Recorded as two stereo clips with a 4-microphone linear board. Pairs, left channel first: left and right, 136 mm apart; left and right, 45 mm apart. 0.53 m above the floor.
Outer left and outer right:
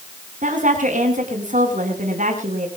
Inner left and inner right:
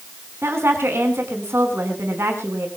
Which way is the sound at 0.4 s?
65° right (ahead or behind).